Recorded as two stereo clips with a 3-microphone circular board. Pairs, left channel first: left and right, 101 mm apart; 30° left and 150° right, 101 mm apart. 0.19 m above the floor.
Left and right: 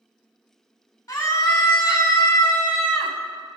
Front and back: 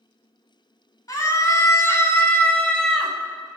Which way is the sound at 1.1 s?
55° left.